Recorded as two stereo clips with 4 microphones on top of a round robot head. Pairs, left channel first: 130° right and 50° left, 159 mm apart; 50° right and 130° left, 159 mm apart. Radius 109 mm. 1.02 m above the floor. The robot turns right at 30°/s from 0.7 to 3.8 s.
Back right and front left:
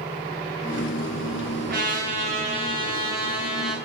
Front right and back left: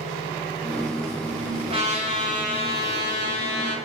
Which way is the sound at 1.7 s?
75° left.